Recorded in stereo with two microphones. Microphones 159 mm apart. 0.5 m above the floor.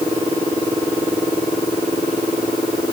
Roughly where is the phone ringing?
I don't hear a phone ringing.